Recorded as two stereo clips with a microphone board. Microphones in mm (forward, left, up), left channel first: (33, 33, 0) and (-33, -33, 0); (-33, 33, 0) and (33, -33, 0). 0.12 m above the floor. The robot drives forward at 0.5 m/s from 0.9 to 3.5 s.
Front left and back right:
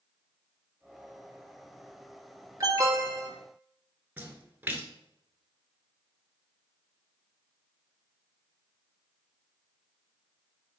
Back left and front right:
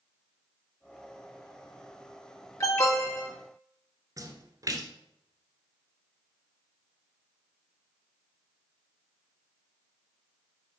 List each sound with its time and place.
2.6 s an alarm: 175° right, 2 m; by 3.3 s straight behind, 2.5 m
4.2 s a splash: 70° right, 1.3 m